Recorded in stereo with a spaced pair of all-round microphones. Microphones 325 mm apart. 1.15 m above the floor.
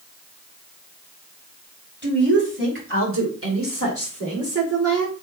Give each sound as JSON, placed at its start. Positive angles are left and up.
{"t": 2.0, "sound": "a woman speaking", "side_deg": -30, "distance_m": 3.0}